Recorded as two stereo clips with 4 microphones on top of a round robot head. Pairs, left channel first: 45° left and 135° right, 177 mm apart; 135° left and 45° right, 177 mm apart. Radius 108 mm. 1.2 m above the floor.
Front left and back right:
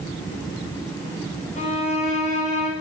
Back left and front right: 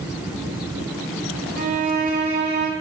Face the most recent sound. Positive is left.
turn(degrees=-5)